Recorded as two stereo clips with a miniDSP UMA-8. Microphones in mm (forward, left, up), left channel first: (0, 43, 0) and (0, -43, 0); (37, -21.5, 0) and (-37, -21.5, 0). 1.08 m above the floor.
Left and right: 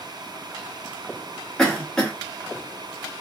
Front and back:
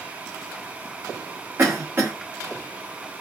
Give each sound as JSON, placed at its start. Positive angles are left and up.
{"t": 1.6, "sound": "a cough", "azimuth_deg": 165, "distance_m": 0.6}